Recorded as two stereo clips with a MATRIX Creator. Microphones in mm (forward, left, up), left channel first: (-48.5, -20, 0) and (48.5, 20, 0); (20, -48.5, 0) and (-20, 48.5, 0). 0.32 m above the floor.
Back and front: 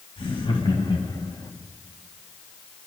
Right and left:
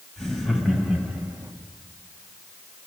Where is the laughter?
155° right, 2 m; by 1.5 s 165° left, 1.8 m.